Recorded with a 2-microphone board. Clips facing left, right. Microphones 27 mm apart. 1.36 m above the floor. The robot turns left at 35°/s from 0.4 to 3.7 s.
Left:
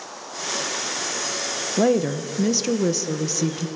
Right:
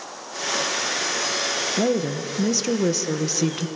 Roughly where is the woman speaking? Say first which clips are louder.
Left 6 dB; ahead left.